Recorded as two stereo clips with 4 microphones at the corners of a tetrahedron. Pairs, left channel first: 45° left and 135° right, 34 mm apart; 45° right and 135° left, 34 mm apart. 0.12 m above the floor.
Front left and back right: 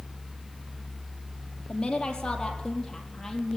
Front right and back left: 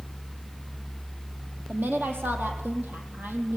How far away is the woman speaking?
About 4 m.